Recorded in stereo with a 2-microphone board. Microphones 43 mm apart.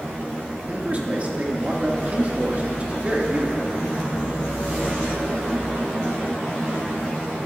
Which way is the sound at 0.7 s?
40° right (ahead or behind).